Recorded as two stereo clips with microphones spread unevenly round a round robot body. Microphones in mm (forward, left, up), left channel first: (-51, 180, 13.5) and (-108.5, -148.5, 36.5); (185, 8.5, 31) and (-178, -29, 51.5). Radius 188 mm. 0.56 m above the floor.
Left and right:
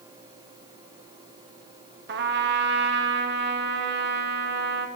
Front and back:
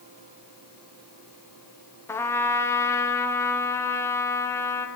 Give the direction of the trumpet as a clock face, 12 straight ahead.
2 o'clock.